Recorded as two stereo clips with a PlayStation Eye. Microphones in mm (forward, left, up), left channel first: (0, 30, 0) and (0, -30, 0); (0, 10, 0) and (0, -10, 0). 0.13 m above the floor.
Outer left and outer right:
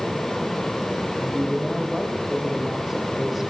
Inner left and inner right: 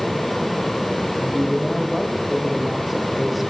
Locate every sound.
1.2 s a man speaking: 5° right (ahead or behind), 5.5 m